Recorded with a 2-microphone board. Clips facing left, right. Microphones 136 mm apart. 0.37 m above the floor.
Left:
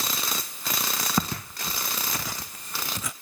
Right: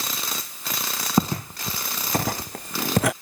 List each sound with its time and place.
1.2 s footsteps: 25° right (ahead or behind); by 3.1 s 75° right (ahead or behind)